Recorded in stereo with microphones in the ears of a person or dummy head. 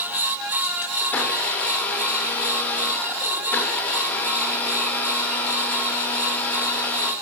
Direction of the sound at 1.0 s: 10° left (ahead or behind).